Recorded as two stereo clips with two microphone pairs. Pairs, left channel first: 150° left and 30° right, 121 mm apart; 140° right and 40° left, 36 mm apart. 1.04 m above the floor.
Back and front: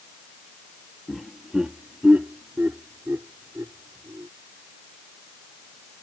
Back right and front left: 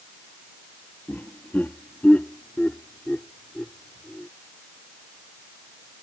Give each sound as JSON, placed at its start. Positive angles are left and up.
{"t": 1.1, "sound": "laughter", "azimuth_deg": -120}